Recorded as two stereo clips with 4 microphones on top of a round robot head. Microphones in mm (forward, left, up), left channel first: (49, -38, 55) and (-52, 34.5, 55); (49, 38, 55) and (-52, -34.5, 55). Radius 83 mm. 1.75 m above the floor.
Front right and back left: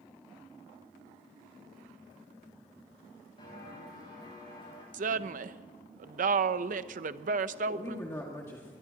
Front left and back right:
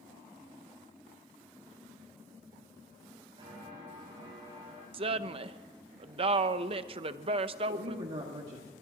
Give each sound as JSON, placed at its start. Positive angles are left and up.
{"t": 3.4, "sound": "footsteps", "azimuth_deg": -85, "distance_m": 8.5}
{"t": 4.9, "sound": "a woman speaking", "azimuth_deg": 170, "distance_m": 0.6}
{"t": 7.7, "sound": "a woman speaking", "azimuth_deg": -105, "distance_m": 1.9}